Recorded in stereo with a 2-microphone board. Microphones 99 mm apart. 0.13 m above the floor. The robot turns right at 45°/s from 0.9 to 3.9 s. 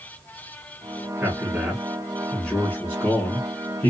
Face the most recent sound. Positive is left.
turn(degrees=25)  # may be behind; listen again after turning